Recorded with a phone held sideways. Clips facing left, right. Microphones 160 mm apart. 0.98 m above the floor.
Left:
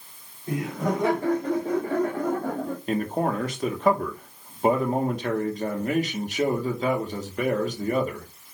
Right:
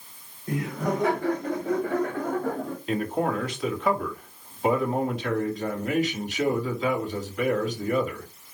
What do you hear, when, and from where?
0.5 s laughter: 25° left (ahead or behind), 5.5 m; by 2.8 s 35° left (ahead or behind), 2 m
2.9 s a man speaking: 40° left (ahead or behind), 2.5 m